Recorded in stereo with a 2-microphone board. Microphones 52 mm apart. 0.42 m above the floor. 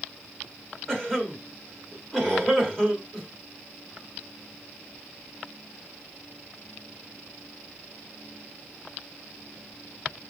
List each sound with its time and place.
0.9 s a cough: 10° left (ahead or behind), 1.2 m